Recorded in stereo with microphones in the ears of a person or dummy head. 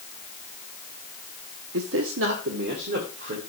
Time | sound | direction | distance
1.7 | a man speaking | 75° right (ahead or behind) | 0.8 m